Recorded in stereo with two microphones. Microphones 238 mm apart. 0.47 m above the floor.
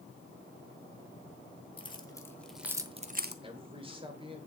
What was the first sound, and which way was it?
Keys jangling, 20° left (ahead or behind).